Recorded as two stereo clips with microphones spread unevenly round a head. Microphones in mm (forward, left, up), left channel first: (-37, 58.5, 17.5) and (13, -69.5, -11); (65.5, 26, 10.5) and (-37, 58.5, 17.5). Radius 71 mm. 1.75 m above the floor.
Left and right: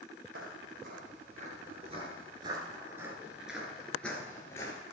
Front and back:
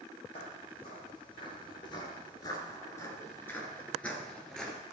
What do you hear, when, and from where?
0.3 s footsteps: 60° right, 2.5 m; by 4.8 s 70° left, 2 m